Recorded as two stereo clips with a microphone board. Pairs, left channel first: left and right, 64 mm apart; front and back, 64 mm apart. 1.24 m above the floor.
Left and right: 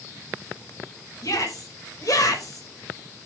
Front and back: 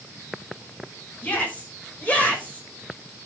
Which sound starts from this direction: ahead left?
A shout, at 1.2 s.